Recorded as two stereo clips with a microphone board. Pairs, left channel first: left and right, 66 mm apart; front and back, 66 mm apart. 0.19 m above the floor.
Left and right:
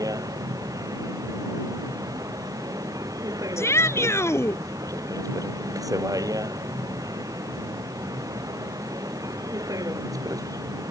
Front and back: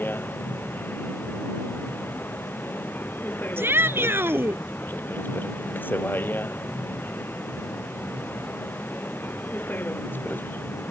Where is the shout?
130° left.